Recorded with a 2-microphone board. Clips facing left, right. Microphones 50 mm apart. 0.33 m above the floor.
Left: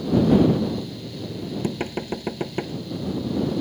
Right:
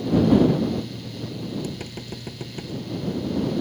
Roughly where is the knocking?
Left.